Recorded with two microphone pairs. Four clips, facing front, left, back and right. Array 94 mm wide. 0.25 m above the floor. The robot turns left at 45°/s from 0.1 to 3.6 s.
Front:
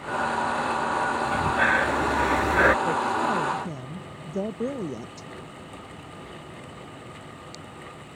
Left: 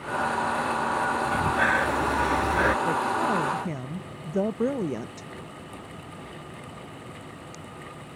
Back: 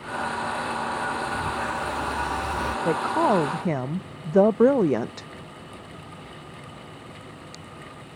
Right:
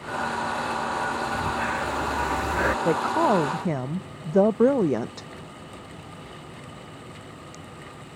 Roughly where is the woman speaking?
Right.